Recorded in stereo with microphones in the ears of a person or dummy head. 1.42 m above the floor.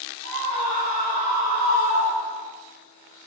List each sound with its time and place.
0.2 s a scream: 75° right (ahead or behind), 4 m